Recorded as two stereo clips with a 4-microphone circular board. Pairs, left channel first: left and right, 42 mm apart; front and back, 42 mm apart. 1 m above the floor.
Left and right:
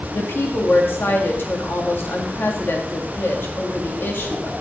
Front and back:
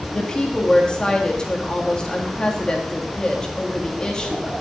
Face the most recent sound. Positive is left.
turn(degrees=70)